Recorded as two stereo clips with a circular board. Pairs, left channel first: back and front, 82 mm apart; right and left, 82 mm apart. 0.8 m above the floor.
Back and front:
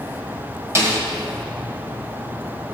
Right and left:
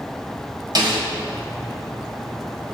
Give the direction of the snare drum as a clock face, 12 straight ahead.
10 o'clock.